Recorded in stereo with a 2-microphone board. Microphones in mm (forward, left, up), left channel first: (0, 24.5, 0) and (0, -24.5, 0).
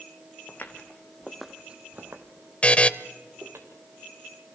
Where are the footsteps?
35° left (ahead or behind), 2.0 m; by 3.6 s 80° right, 3 m.